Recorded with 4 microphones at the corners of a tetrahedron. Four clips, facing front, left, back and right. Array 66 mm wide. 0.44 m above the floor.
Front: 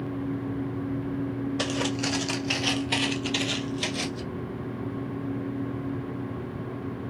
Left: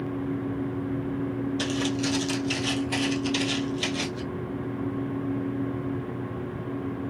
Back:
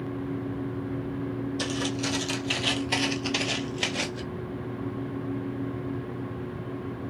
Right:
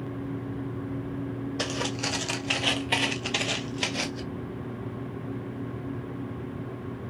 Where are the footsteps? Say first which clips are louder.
Left 2 dB, front 2 dB; 35° right, 0.9 m; by 4.2 s 150° right, 1.0 m.